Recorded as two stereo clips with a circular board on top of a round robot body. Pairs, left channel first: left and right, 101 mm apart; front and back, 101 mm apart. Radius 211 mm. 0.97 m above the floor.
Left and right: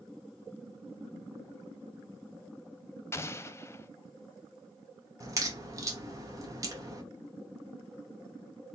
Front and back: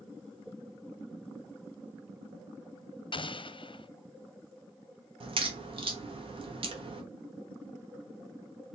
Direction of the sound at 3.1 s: 25° left.